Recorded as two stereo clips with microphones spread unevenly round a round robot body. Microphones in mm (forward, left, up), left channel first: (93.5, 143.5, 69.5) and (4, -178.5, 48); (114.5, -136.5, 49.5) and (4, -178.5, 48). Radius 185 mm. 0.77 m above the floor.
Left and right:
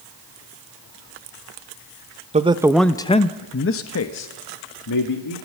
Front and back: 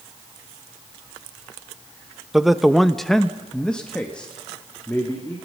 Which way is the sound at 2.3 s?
75° right.